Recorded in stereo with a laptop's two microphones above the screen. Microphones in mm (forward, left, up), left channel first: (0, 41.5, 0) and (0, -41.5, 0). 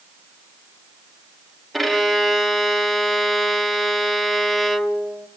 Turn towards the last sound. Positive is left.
turn(degrees=0)  # may be behind; listen again after turning